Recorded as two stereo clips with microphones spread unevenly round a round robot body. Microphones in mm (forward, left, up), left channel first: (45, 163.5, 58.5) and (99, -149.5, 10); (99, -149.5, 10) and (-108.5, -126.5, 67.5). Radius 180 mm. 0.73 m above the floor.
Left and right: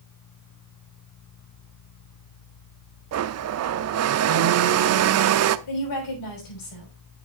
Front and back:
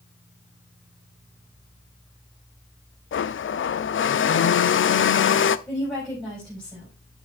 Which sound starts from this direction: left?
A woman speaking, at 5.7 s.